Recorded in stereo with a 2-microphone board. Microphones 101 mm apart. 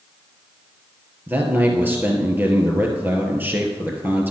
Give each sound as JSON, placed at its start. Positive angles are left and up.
{"t": 1.3, "sound": "a man speaking", "side_deg": -20, "distance_m": 2.0}